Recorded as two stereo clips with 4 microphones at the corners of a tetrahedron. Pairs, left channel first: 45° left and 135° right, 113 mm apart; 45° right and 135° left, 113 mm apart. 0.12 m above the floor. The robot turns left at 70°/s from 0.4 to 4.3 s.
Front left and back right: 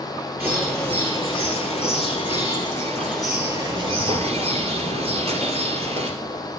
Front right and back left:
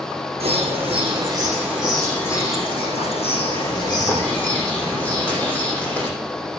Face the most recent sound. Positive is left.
turn(degrees=-120)